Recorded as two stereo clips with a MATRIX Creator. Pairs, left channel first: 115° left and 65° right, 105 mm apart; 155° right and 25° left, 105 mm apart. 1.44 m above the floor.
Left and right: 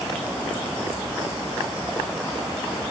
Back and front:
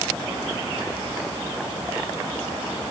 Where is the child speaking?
No child speaking in this recording.